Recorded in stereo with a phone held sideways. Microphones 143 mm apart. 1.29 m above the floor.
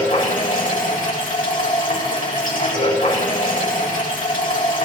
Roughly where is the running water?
Left.